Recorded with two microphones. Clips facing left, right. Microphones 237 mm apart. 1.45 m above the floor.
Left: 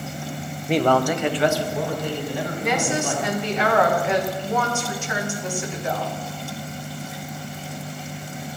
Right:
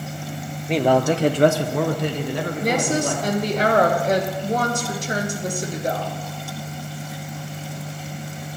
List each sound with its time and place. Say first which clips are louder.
0.7 s a man speaking: right 1 dB; 5° left (ahead or behind), 0.5 m; by 3.6 s 85° right, 1.8 m
2.6 s a woman speaking: right 3 dB; 40° right (ahead or behind), 1.0 m